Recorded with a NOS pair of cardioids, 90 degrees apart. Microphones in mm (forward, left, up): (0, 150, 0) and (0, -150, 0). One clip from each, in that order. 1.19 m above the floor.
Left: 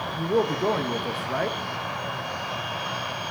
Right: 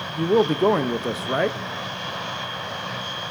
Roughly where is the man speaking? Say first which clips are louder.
Right 5 dB; ahead right.